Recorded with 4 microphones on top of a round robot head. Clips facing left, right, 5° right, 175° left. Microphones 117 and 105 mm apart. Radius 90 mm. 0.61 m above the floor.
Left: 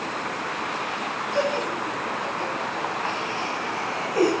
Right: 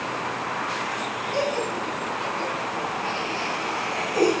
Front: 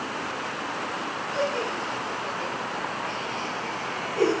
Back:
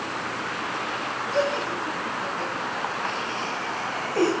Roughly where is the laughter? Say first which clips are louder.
Left 1 dB, back 3 dB; behind.